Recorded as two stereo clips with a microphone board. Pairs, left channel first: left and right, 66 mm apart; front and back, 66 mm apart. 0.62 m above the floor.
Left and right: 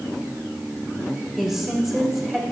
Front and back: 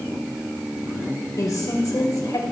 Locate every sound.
1.4 s a woman speaking: 5° right, 3.5 m